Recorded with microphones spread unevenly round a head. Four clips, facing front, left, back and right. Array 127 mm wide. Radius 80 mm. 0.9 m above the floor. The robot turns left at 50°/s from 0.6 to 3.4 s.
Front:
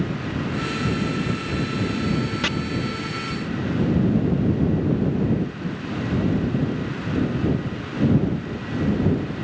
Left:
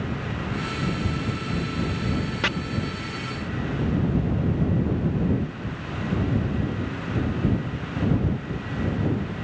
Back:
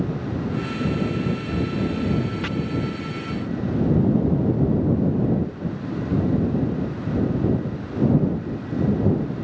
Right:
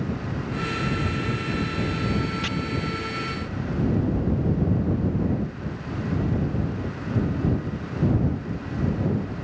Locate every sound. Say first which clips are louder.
2.4 s chopping: left 5 dB, front 3 dB; 50° left